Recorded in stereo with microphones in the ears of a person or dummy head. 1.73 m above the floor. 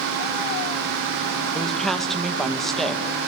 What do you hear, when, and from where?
1.6 s a woman speaking: centre (ahead or behind), 2.5 m